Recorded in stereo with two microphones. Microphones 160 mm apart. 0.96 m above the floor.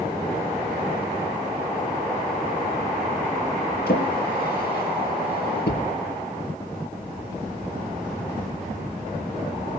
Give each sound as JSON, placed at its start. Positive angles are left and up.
{"t": 3.9, "sound": "a drawer", "side_deg": 85, "distance_m": 5.5}